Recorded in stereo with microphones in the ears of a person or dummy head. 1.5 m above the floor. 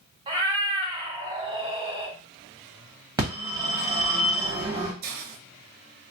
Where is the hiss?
50° right (ahead or behind), 0.7 m.